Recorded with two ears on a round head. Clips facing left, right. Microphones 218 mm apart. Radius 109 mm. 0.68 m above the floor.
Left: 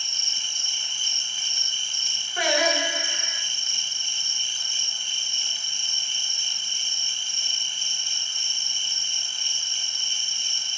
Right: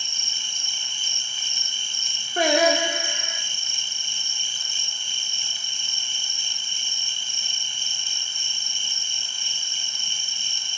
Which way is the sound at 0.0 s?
85° right.